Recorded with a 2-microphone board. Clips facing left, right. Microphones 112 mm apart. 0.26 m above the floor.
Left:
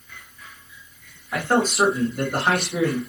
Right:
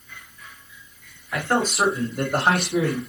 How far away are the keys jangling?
No keys jangling in this recording.